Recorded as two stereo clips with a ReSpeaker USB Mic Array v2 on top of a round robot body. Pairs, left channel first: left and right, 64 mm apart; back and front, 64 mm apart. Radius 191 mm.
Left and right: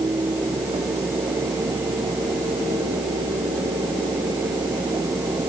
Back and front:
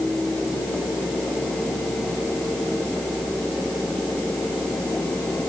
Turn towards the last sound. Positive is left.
No sound to turn to.